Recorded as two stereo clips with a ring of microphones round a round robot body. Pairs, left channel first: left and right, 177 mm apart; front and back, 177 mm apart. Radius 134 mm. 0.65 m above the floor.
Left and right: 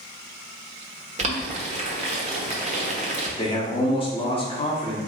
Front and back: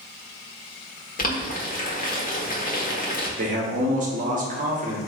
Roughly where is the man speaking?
Behind left.